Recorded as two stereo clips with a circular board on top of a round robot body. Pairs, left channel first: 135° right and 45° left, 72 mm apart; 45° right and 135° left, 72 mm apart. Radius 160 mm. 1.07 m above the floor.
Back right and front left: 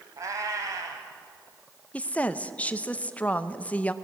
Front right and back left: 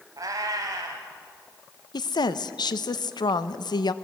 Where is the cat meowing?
90° left, 1.5 m.